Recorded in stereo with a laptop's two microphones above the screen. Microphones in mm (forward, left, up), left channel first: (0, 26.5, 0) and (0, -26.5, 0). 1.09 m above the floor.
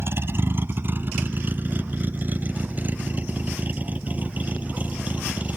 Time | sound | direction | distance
0.0 | a vehicle | 50° right (ahead or behind) | ?